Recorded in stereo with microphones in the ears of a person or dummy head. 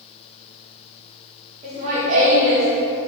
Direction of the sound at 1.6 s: 35° right (ahead or behind).